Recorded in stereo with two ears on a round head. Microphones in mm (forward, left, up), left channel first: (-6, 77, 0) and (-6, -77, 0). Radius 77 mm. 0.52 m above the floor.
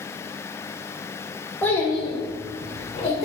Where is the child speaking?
10° left (ahead or behind), 0.7 m; by 3.2 s 40° left (ahead or behind), 1.3 m.